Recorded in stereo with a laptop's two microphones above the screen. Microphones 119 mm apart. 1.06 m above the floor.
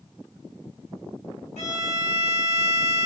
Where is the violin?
65° left (ahead or behind), 1.8 m.